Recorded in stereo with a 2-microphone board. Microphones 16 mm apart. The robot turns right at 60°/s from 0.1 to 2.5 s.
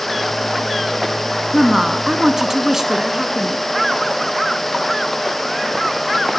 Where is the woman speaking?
15° right (ahead or behind), 1.3 m; by 3.6 s 25° right (ahead or behind), 1.3 m.